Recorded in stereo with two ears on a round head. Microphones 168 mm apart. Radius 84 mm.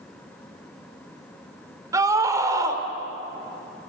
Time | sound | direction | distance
1.9 | a scream | 20° right (ahead or behind) | 3.5 m